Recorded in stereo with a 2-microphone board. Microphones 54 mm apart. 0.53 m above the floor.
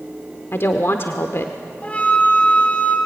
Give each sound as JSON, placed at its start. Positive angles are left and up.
{"t": 0.5, "sound": "a woman speaking", "side_deg": 55, "distance_m": 1.1}
{"t": 1.8, "sound": "a flute", "side_deg": 25, "distance_m": 3.0}